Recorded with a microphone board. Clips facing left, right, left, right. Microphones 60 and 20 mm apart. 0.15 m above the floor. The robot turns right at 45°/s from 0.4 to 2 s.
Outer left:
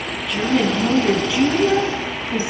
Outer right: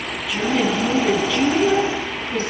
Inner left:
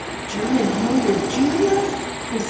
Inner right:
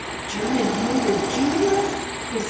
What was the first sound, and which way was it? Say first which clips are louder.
A woman speaking: outer left 1 dB, inner left 2 dB; 5° right (ahead or behind).